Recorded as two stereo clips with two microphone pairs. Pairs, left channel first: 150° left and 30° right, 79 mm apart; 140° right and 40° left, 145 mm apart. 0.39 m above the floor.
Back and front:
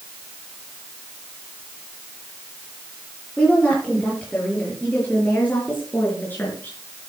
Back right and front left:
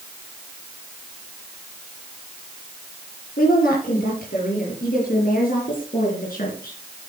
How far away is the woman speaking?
About 7.5 m.